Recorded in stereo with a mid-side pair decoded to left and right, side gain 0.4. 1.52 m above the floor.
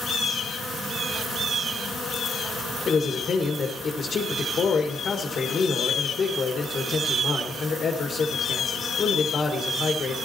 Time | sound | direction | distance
2.9 | a man speaking | 50° left | 2 m